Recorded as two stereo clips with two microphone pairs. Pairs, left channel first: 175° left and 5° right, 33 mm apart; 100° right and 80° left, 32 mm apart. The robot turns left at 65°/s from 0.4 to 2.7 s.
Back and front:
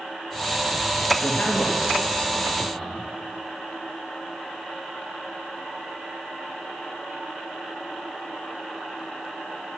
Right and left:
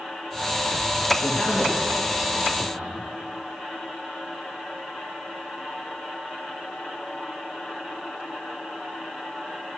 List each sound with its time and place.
1.2 s a man speaking: 150° right, 2.5 m; by 3.0 s 115° left, 2.5 m